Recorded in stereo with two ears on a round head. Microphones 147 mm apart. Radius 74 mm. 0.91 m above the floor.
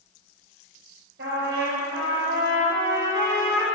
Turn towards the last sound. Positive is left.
turn(degrees=-70)  # may be behind; listen again after turning